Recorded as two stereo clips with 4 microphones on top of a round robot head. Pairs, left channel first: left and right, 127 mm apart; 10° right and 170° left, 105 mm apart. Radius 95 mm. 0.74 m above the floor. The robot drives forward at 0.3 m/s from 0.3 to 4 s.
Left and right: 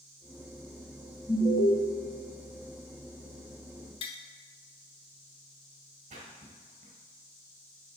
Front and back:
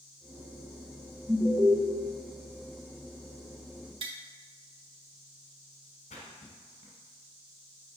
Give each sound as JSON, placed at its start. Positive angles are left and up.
{"t": 1.3, "sound": "an alarm", "azimuth_deg": 115, "distance_m": 1.4}
{"t": 4.0, "sound": "tapping", "azimuth_deg": 135, "distance_m": 0.8}
{"t": 6.1, "sound": "a splash", "azimuth_deg": -50, "distance_m": 2.0}